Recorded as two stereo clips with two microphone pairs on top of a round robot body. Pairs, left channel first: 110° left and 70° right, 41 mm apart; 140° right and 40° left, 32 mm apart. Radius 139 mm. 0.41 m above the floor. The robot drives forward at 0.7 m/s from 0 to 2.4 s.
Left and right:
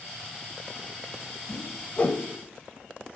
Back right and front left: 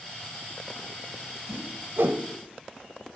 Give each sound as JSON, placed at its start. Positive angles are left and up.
{"t": 1.5, "sound": "a whoosh", "azimuth_deg": 35, "distance_m": 0.9}